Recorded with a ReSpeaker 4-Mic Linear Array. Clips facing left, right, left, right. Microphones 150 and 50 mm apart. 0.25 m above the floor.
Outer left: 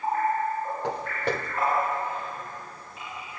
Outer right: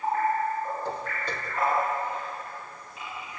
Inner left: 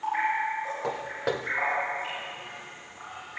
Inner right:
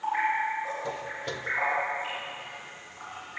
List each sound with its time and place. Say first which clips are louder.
0.8 s footsteps: outer left 4 dB, inner left 4 dB; 80° left, 2 m; by 3.4 s 5° left (ahead or behind), 1.0 m